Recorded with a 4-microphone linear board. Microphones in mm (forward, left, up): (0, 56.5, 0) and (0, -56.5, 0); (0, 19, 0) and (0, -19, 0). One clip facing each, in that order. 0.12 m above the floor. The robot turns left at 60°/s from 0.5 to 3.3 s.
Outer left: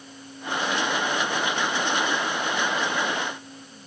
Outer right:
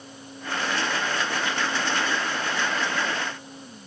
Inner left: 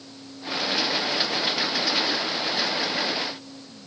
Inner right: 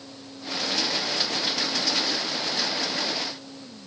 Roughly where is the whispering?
I don't hear whispering.